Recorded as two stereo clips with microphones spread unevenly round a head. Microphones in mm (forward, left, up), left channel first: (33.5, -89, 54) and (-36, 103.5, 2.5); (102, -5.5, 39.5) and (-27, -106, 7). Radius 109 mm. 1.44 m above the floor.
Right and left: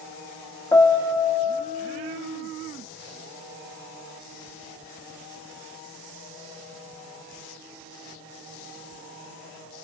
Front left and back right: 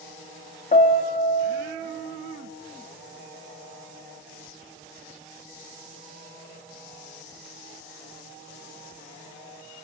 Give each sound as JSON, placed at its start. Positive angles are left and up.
{"t": 0.7, "sound": "a piano", "azimuth_deg": 0, "distance_m": 1.7}